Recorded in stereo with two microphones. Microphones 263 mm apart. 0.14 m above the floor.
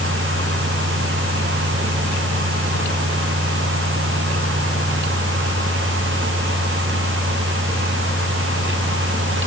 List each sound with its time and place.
Only background noise.